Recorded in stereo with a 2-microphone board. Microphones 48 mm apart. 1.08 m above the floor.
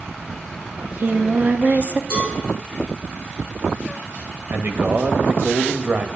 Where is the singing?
40° right (ahead or behind), 0.7 m.